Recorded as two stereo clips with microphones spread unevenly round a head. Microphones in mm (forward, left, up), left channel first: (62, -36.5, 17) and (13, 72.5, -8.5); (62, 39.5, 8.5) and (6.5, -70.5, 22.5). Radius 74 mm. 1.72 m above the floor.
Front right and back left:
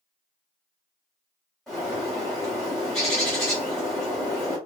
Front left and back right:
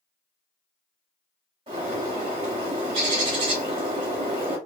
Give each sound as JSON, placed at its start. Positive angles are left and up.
{"t": 1.7, "sound": "a bird", "azimuth_deg": -140, "distance_m": 2.0}